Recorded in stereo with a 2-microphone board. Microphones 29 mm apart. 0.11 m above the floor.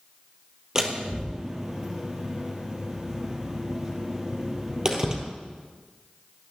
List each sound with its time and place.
0.8 s a door slam: 20° right (ahead or behind), 2 m